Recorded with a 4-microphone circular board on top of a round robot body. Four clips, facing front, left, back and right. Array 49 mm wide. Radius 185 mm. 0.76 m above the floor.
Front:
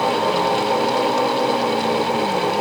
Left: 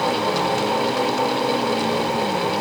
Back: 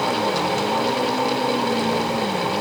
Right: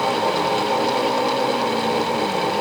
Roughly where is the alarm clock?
I don't hear an alarm clock.